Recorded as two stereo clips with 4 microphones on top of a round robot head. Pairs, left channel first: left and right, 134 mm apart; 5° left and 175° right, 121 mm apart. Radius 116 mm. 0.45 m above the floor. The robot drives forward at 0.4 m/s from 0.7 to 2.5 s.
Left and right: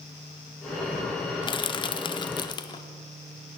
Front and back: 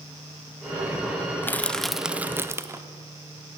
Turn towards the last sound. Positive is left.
turn(degrees=125)